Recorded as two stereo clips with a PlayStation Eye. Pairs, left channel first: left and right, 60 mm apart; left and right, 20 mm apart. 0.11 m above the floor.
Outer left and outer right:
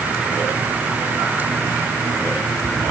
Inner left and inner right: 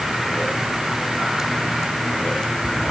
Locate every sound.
Only background noise.